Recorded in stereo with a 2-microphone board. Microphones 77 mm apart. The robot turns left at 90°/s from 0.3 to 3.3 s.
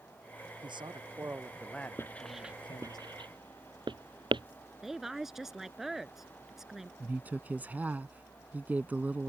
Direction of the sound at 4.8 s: 5° right (ahead or behind).